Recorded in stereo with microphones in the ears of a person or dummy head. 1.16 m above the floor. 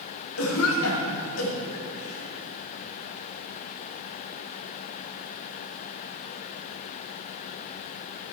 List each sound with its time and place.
0.4 s a cough: 90° left, 2.5 m